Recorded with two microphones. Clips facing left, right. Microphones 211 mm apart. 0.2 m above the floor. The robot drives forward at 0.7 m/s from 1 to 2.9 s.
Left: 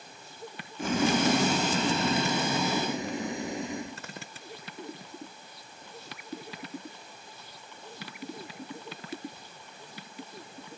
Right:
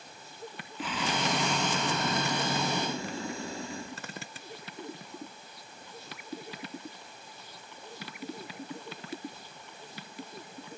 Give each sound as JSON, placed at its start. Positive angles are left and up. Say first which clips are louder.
{"t": 0.8, "sound": "boiling", "louder": "left 8 dB", "side_deg": 45, "distance_m": 0.6}